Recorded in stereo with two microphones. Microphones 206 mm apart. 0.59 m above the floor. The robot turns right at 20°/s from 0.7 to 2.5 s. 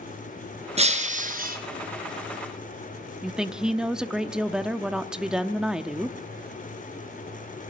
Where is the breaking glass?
30° right (ahead or behind), 3.5 m; by 1.6 s 45° right (ahead or behind), 3.5 m.